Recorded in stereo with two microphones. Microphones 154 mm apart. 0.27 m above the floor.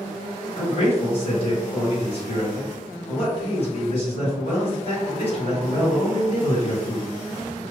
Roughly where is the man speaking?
Left.